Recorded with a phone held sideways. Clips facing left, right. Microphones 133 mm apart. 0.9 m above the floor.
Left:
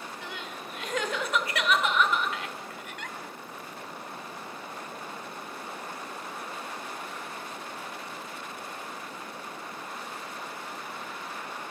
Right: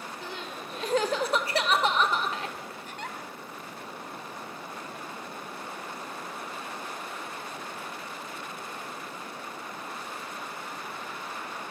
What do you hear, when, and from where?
0.2 s crying: 35° right (ahead or behind), 1.6 m